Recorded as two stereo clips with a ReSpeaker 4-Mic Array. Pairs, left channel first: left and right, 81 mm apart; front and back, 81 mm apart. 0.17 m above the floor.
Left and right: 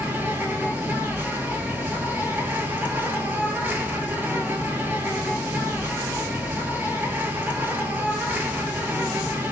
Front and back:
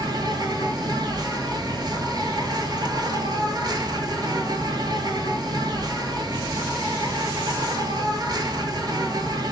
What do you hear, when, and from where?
0.0 s an insect: 155° right, 0.9 m